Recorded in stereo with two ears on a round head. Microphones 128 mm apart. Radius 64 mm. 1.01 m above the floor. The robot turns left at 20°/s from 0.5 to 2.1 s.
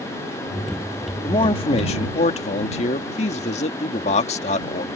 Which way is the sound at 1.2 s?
35° left (ahead or behind).